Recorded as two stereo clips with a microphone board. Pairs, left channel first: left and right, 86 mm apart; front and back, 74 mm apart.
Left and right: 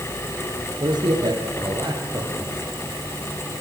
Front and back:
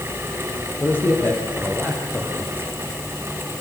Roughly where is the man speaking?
Ahead right.